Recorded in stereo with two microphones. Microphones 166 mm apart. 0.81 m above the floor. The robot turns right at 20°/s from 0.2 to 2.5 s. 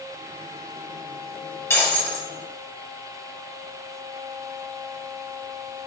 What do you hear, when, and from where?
1.7 s breaking glass: 15° left (ahead or behind), 2.5 m; by 2.3 s 5° left (ahead or behind), 2.5 m